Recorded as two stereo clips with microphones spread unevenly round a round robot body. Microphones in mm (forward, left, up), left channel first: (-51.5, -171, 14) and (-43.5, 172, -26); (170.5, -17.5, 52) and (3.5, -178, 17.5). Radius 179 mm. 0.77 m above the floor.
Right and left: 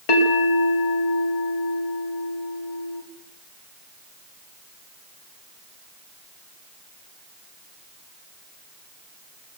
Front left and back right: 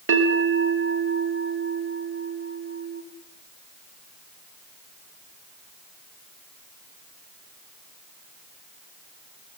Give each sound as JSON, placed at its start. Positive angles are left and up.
{"t": 0.1, "sound": "a bell", "azimuth_deg": -105, "distance_m": 4.5}